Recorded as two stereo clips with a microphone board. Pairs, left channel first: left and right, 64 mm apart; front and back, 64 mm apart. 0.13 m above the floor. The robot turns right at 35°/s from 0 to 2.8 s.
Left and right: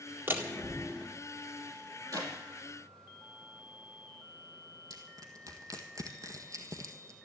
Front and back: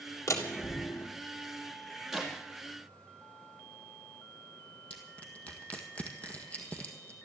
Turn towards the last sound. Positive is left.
turn(degrees=-65)